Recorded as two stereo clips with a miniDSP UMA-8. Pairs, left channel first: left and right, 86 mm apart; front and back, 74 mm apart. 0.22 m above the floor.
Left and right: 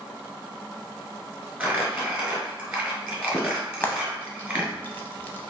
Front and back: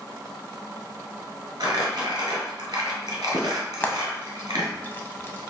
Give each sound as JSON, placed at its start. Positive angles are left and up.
{"t": 1.6, "sound": "crumpling", "azimuth_deg": -165, "distance_m": 1.4}
{"t": 3.8, "sound": "frying", "azimuth_deg": 40, "distance_m": 0.5}